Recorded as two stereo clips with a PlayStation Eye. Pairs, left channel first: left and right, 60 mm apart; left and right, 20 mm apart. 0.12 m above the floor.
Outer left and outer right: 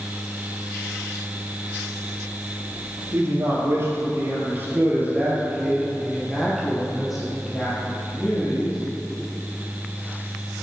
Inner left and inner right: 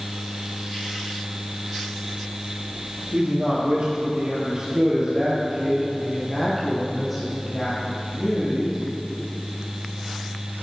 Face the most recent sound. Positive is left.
turn(degrees=10)  # may be behind; listen again after turning